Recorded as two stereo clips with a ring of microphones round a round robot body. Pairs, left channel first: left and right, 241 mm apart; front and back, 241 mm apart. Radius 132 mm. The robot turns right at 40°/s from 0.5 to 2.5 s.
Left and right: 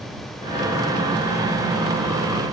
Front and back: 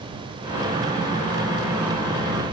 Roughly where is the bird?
No bird in this recording.